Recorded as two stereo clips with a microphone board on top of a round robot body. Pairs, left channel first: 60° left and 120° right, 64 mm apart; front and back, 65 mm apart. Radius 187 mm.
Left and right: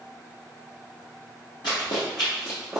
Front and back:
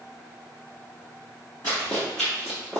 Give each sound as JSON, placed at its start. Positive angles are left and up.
{"t": 1.6, "sound": "running footsteps", "azimuth_deg": 65, "distance_m": 1.0}